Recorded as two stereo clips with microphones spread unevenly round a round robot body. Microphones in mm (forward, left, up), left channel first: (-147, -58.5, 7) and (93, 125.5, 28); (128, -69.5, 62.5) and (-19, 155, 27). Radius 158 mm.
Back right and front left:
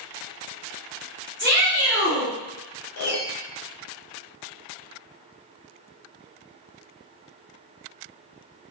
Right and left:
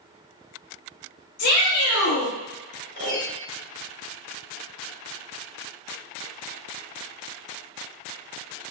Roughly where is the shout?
Right.